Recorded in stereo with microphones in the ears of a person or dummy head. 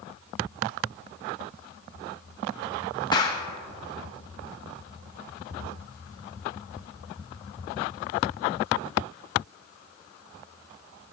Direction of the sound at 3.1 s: 25° left (ahead or behind).